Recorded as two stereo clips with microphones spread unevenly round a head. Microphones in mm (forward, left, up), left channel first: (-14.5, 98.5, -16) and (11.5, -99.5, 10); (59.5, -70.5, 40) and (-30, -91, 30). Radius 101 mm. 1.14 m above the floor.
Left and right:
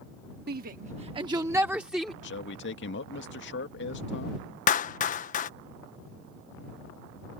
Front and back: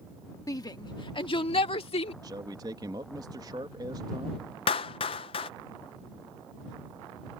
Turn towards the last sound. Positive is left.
turn(degrees=50)